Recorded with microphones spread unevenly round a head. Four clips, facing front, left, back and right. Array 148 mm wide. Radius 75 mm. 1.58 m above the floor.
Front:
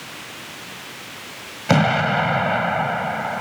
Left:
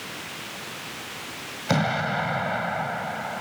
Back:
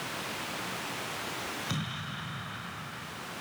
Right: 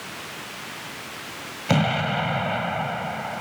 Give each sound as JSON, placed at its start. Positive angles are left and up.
{"t": 1.7, "sound": "an explosion", "azimuth_deg": -5}